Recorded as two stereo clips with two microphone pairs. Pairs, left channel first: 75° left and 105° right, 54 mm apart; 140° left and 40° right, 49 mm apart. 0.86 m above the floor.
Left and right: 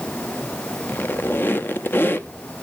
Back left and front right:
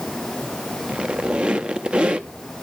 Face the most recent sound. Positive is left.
turn(degrees=25)